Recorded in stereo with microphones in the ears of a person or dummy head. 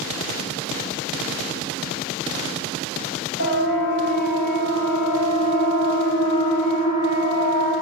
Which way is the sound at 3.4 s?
70° left (ahead or behind).